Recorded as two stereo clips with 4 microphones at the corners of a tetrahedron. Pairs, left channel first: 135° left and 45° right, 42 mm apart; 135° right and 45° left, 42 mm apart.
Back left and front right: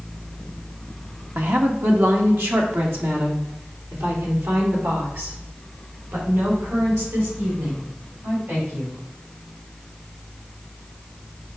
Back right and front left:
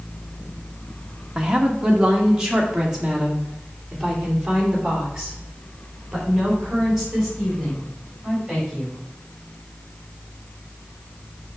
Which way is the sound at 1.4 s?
25° right.